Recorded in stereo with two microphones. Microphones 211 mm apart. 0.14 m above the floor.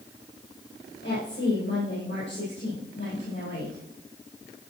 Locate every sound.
1.0 s a woman speaking: 70° left (ahead or behind), 5.5 m